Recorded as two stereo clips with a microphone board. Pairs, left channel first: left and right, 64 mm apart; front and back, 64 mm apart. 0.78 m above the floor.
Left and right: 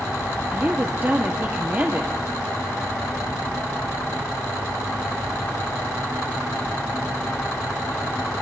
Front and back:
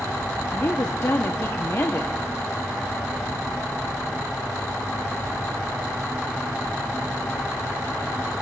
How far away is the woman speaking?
About 0.9 m.